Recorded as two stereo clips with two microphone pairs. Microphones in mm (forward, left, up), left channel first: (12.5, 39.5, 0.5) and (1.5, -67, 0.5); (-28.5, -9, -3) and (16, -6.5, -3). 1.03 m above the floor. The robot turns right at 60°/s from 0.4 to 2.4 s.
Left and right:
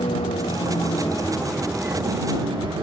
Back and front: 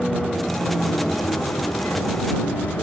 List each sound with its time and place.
0.0 s a vehicle: 100° left; by 2.8 s 140° right